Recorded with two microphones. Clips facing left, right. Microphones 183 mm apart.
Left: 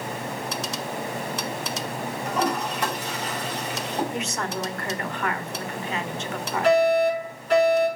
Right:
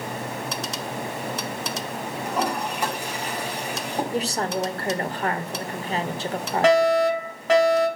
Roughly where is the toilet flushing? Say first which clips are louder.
Left 1 dB; centre.